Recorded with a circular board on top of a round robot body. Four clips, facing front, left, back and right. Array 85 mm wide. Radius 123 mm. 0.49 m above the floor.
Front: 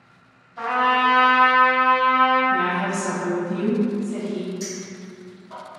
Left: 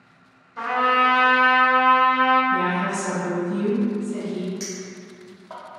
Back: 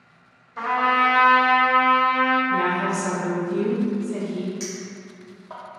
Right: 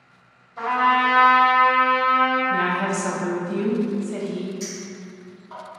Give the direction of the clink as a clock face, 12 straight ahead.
8 o'clock.